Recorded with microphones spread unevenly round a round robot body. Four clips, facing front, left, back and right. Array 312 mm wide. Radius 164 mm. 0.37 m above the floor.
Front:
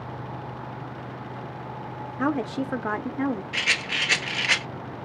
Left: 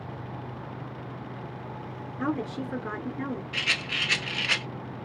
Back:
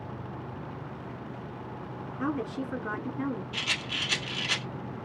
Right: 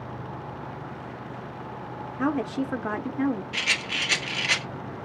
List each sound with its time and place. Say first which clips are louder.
2.2 s a woman speaking: right 4 dB, front 6 dB; 25° right, 0.8 m
3.5 s a rattle: right 2 dB, front 6 dB; 20° right, 1.4 m